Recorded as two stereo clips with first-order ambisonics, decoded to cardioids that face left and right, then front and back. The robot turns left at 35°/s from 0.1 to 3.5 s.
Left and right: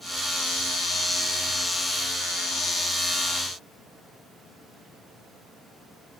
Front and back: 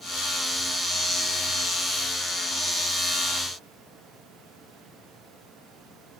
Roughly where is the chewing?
I don't hear chewing.